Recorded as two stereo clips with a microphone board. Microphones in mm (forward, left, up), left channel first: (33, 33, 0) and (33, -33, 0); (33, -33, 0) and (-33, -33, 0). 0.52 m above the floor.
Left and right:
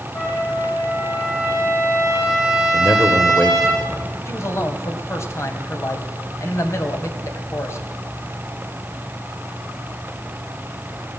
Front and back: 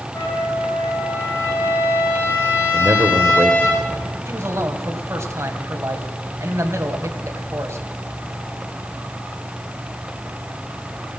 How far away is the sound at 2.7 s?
About 1.7 m.